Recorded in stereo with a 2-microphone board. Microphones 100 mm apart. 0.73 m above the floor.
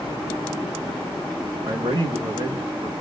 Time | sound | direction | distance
1.6 | a man speaking | 35° right (ahead or behind) | 1.0 m